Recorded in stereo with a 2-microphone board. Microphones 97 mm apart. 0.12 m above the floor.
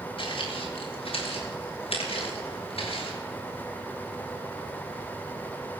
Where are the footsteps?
65° left (ahead or behind), 5.5 m; by 3.2 s 75° left (ahead or behind), 6.5 m.